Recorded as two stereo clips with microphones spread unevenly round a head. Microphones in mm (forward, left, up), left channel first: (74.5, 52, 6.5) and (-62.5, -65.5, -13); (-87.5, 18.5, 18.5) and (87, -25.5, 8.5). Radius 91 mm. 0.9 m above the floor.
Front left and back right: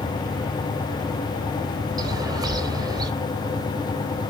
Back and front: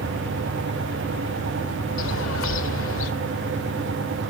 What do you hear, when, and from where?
2.0 s a bird: 150° left, 1.7 m